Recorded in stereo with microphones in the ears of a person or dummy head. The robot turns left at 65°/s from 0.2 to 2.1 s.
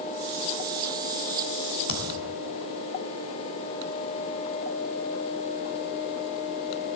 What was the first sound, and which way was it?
A thud, 65° left (ahead or behind).